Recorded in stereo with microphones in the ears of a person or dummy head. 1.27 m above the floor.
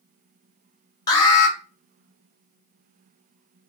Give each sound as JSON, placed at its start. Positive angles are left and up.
{"t": 1.1, "sound": "an alarm", "side_deg": 20, "distance_m": 0.8}